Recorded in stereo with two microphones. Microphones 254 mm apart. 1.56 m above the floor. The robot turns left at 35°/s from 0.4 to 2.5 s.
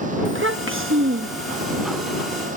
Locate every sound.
0.2 s a child speaking: 75° right; by 1.7 s 120° right